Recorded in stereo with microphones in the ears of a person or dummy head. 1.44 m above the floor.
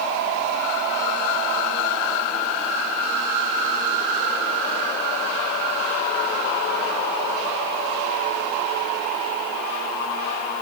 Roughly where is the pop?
I don't hear a pop.